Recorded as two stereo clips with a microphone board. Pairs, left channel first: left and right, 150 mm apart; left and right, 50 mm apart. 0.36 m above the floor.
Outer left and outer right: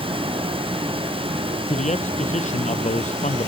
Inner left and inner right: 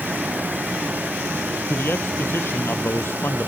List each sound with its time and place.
1.7 s a man speaking: 55° left (ahead or behind)